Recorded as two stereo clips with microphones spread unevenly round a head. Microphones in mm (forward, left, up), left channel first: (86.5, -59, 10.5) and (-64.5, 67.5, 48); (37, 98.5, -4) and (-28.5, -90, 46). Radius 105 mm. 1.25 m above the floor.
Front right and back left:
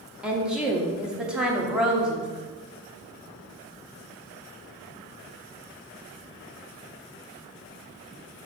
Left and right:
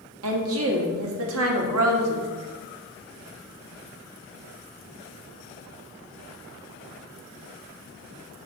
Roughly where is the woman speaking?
Behind right.